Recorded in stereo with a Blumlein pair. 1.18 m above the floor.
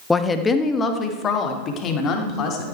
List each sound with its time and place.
0.1 s a woman speaking: 10° left, 1.1 m; by 2.6 s 30° left, 3 m